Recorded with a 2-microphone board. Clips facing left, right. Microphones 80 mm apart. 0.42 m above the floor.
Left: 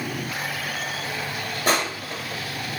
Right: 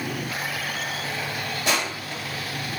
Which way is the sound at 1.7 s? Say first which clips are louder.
Left 4 dB; 40° left (ahead or behind).